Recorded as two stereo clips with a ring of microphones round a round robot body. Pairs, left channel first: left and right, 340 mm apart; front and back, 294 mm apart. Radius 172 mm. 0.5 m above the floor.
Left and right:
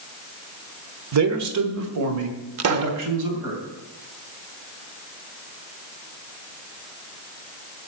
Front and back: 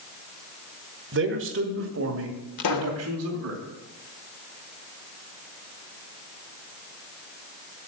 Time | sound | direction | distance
1.1 | a man speaking | 130° right | 1.3 m
2.6 | a pop | 40° right | 0.7 m